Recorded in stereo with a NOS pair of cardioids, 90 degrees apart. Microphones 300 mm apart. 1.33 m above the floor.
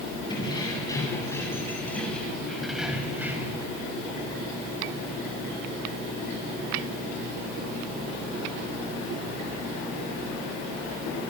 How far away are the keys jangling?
About 8.5 m.